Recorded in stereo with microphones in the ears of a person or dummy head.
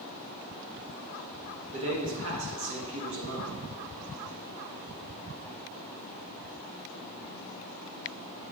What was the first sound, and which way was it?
A man speaking, 65° right (ahead or behind).